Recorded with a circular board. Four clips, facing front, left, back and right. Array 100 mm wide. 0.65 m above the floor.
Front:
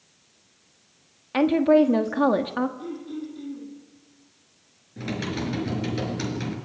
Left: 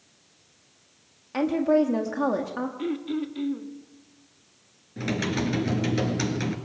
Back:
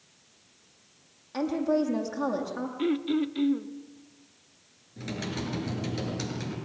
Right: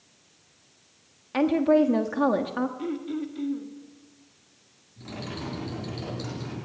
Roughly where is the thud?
I don't hear a thud.